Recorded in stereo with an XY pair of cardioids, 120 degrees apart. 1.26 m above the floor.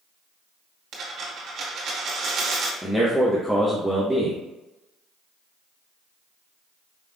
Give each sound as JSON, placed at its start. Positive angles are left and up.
{"t": 0.9, "sound": "a dropped coin", "azimuth_deg": -65, "distance_m": 1.9}
{"t": 2.8, "sound": "a man speaking", "azimuth_deg": 5, "distance_m": 1.0}